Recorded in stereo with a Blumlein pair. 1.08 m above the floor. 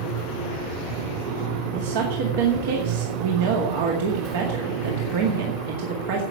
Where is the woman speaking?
55° right, 2.0 m.